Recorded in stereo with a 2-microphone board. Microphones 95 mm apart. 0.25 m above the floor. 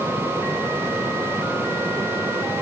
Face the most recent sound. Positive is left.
No sound to turn to.